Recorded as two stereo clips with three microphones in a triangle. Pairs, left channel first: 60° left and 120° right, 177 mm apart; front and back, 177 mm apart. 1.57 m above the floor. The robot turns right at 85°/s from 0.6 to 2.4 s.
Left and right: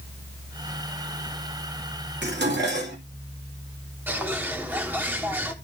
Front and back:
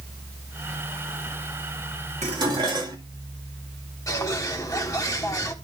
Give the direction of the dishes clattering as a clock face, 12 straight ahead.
4 o'clock.